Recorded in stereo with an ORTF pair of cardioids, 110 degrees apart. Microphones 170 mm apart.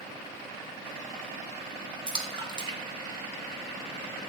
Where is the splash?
30° right, 1.3 m.